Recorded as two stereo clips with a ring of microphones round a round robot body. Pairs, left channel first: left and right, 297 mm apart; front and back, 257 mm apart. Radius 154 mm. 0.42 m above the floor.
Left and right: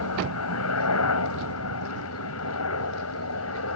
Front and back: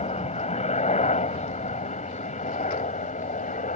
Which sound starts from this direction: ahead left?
A helicopter, at 0.0 s.